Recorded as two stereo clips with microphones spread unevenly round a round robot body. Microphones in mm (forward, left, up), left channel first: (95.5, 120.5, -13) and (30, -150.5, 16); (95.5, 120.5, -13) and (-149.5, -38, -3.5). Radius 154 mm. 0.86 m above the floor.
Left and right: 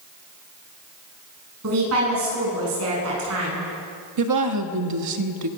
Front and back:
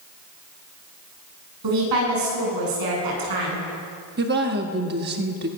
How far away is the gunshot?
No gunshot in this recording.